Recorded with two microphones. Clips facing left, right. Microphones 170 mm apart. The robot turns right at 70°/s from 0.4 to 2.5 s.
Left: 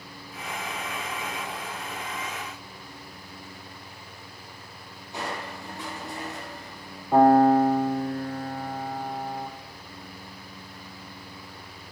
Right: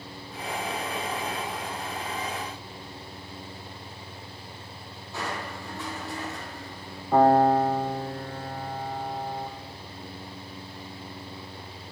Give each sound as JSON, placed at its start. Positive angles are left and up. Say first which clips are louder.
{"t": 5.1, "sound": "crushing", "louder": "even", "side_deg": 15, "distance_m": 7.0}
{"t": 7.1, "sound": "a piano", "louder": "left 2 dB", "side_deg": 5, "distance_m": 3.5}